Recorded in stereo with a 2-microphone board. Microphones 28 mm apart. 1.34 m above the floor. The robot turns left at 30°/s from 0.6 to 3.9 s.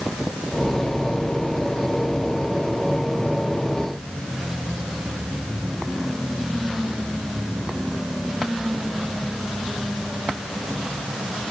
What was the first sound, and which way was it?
Only background noise.